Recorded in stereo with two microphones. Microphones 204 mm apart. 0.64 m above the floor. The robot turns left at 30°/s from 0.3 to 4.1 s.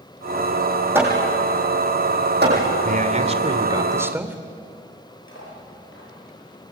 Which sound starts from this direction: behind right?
A man speaking, at 2.8 s.